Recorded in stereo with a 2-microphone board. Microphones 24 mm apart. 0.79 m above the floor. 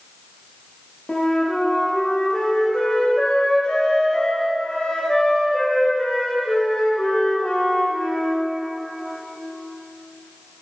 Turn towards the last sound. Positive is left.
turn(degrees=45)  # may be behind; listen again after turning